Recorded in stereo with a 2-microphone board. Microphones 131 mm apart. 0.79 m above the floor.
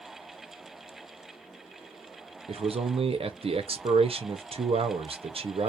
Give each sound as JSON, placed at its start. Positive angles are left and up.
{"t": 2.5, "sound": "a man speaking", "side_deg": -50, "distance_m": 0.6}